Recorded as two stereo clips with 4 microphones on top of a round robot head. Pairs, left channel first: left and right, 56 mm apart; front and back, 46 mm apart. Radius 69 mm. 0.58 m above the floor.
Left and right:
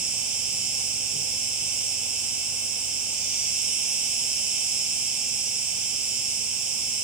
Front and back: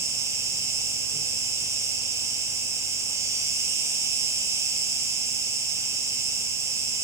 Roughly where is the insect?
Behind.